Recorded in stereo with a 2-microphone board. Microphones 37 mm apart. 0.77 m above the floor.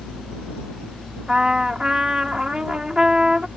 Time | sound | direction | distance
1.3 | a trumpet | 20° right (ahead or behind) | ?